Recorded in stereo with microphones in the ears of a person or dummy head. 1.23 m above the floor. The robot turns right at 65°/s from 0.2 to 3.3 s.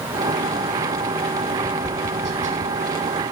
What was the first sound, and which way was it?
Tapping, 10° left (ahead or behind).